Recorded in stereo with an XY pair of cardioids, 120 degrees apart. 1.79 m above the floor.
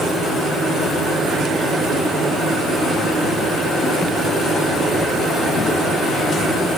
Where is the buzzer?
I don't hear a buzzer.